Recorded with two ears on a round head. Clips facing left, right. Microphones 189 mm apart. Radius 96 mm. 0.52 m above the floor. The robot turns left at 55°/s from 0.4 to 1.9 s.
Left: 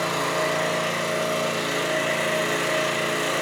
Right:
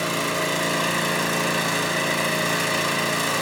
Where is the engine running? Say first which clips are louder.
Left 1 dB; 35° right, 3.5 m; by 3.4 s 120° right, 3.5 m.